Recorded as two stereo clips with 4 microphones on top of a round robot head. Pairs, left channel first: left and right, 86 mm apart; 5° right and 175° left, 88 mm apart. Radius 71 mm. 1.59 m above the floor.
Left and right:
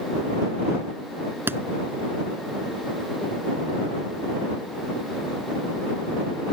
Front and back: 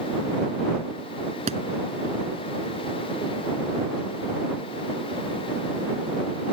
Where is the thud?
155° right.